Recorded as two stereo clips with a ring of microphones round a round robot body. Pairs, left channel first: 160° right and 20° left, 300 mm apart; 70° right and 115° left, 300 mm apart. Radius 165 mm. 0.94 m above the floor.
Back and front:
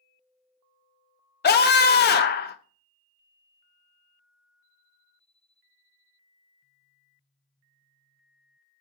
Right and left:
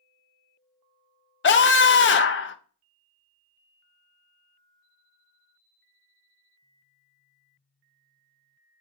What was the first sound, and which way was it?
A scream, 110° right.